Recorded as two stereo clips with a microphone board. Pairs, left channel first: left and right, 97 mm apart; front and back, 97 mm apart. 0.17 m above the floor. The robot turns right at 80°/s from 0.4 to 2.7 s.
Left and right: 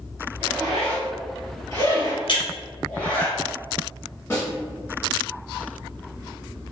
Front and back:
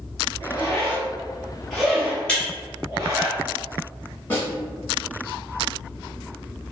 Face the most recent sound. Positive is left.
turn(degrees=50)